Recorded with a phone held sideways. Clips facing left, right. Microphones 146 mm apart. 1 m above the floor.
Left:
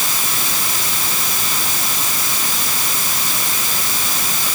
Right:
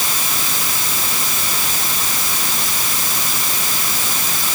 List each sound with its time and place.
Only background noise.